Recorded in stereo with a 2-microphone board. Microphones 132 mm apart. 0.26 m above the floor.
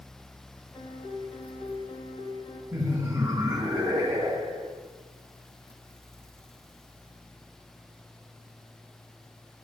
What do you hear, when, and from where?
0.7 s a piano: 35° left (ahead or behind), 2 m
2.7 s laughter: 15° right (ahead or behind), 1.5 m